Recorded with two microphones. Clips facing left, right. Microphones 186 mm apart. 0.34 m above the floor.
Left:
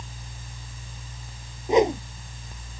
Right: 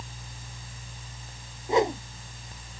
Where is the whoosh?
20° left (ahead or behind).